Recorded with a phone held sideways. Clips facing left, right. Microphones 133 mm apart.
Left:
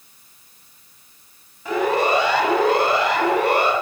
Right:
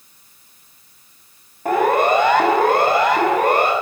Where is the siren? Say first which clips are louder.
Right 4 dB; 50° right (ahead or behind), 6.5 m; by 3.7 s 45° right (ahead or behind), 9.5 m.